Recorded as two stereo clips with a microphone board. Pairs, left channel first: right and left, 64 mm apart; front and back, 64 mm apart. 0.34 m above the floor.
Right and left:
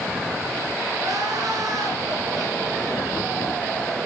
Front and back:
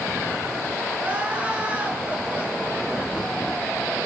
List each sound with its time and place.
1.0 s crying: 115° left, 3 m